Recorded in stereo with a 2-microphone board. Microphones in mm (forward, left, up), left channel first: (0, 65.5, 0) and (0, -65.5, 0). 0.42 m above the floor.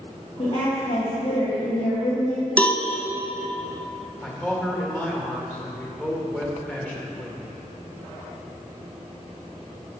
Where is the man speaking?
10° left (ahead or behind), 1.5 m.